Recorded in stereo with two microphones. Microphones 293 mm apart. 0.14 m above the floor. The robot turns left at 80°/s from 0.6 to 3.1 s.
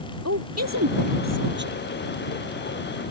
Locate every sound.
0.2 s a woman speaking: 55° right (ahead or behind); by 1.8 s 25° right (ahead or behind)